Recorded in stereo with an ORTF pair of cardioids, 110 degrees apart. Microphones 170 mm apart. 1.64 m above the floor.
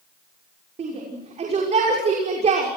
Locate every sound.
0.8 s a shout: 40° right, 6 m